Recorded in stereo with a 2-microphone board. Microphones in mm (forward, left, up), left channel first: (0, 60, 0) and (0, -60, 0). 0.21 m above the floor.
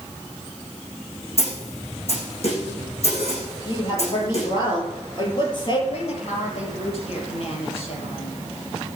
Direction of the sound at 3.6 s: 40° left (ahead or behind).